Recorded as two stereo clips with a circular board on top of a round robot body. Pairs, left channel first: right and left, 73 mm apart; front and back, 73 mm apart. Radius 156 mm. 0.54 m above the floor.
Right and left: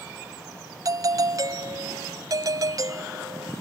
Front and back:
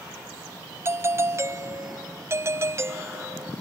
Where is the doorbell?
130° left.